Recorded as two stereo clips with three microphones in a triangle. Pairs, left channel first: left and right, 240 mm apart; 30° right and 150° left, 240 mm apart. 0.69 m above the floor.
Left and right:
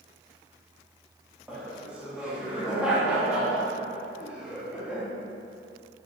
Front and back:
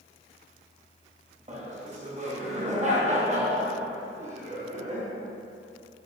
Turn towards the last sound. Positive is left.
turn(degrees=-170)